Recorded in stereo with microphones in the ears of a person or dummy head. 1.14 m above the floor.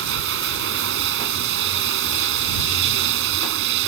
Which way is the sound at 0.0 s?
65° right (ahead or behind).